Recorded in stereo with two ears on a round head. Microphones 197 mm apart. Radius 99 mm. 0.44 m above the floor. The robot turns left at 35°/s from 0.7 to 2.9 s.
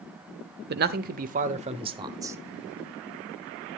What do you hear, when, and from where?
0.7 s a man speaking: 105° right, 1.1 m; by 2.4 s 165° right, 1.1 m